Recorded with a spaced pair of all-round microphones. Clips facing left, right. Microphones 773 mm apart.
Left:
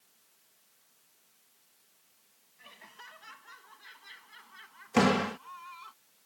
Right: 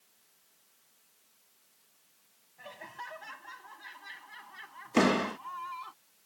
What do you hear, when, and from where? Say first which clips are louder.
2.6 s laughter: right 10 dB; 85° right; by 5.9 s 75° right (ahead or behind)
4.9 s a door slam: even; 25° left (ahead or behind)